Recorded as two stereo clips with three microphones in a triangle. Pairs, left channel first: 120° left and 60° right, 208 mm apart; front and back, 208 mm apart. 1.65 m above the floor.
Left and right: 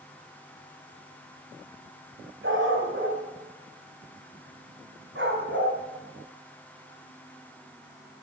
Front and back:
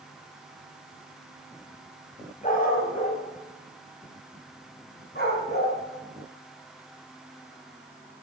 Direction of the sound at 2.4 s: 50° right.